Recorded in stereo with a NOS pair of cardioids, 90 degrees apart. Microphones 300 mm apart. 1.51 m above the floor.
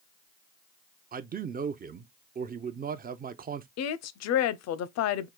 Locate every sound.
1.1 s a man speaking: 30° right, 0.5 m
3.8 s a woman speaking: 70° left, 0.6 m